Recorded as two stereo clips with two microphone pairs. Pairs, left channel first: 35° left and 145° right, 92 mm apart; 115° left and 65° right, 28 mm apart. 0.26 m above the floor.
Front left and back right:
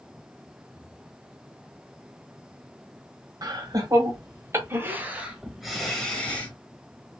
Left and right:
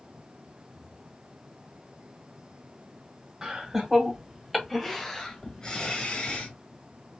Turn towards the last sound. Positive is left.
turn(degrees=100)